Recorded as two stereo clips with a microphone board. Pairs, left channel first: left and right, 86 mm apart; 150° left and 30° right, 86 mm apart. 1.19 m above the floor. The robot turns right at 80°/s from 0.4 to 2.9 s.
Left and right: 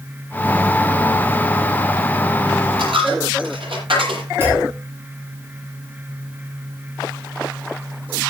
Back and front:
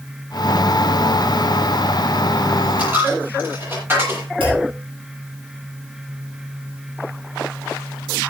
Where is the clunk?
30° right, 9 m.